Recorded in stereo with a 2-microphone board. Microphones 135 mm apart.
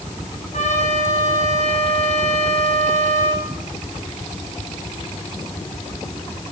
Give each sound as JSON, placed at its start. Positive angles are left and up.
{"t": 0.5, "sound": "a trumpet", "side_deg": 65, "distance_m": 3.0}